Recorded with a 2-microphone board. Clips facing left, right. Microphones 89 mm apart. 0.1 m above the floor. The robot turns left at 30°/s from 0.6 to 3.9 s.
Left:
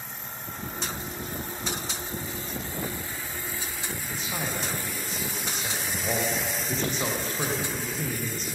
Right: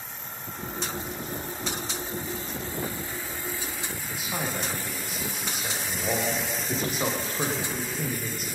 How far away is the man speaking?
About 6 m.